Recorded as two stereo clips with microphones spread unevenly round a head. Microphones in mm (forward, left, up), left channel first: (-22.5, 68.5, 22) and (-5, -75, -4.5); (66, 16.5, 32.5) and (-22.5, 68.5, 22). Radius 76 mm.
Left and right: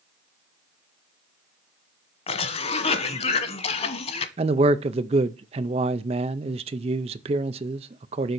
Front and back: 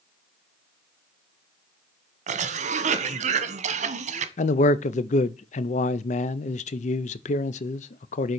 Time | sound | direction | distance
2.3 | a cough | 145° left | 1.1 m
4.4 | a man speaking | 30° right | 0.5 m